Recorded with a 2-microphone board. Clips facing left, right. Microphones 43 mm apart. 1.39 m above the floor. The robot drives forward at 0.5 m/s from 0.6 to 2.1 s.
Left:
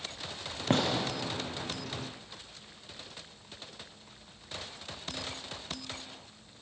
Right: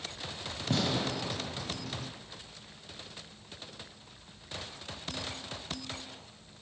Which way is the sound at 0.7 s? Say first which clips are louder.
Left 3 dB; 45° left (ahead or behind).